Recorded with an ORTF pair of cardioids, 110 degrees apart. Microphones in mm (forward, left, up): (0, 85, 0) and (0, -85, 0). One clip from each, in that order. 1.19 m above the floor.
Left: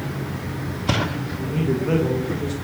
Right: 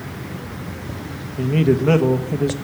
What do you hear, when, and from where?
1.4 s a man speaking: 45° right, 1.2 m